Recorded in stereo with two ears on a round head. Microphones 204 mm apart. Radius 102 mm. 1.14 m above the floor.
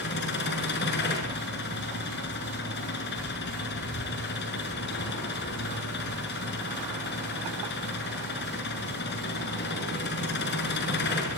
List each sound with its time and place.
0.0 s an engine running: 50° left (ahead or behind), 6.5 m